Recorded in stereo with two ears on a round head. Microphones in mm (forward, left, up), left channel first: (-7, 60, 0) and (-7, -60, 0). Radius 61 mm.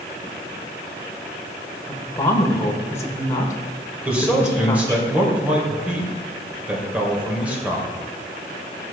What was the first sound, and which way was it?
A woman speaking, 20° left (ahead or behind).